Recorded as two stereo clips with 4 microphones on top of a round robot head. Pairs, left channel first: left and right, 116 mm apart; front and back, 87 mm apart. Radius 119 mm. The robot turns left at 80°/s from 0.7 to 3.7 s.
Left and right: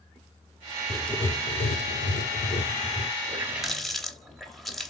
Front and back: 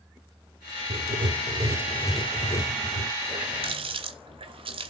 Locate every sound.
0.9 s writing: 175° right, 0.6 m; by 3.1 s 10° left, 0.6 m
3.3 s a running tap: 145° right, 1.5 m; by 4.9 s straight behind, 1.5 m